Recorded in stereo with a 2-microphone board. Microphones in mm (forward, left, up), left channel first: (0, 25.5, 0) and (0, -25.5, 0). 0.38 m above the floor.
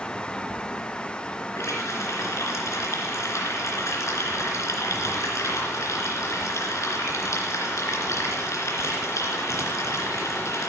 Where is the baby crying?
I don't hear a baby crying.